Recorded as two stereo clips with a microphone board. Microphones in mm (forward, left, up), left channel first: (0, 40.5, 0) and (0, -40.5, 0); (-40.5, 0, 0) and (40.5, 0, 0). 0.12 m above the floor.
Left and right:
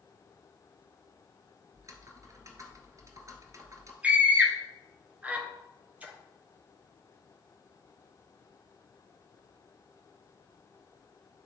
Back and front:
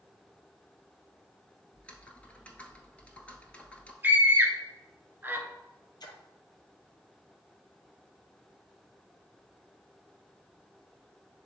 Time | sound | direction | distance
1.7 | typing on a keyboard | 115° right | 1.0 m
4.0 | a scream | 35° right | 1.4 m
6.0 | a splash | 160° right | 1.3 m